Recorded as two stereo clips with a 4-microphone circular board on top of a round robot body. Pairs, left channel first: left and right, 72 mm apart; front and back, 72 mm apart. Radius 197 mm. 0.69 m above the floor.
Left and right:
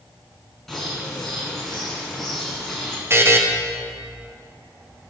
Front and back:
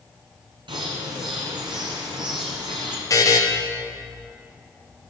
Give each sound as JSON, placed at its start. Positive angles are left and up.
{"t": 0.7, "sound": "a bird", "azimuth_deg": 175, "distance_m": 1.4}
{"t": 3.1, "sound": "a buzzer", "azimuth_deg": -35, "distance_m": 1.4}